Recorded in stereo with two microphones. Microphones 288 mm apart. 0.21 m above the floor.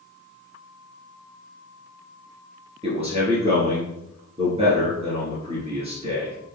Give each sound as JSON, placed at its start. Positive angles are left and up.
{"t": 2.8, "sound": "a man speaking", "side_deg": -20, "distance_m": 3.0}